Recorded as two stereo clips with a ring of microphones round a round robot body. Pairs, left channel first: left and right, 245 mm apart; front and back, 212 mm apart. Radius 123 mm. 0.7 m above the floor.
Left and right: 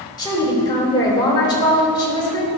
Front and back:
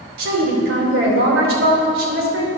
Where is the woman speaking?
165° left, 3 m.